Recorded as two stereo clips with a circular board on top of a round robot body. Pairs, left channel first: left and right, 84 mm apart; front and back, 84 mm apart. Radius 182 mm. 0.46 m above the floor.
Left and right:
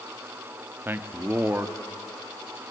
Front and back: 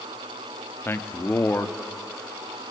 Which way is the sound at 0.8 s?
40° right.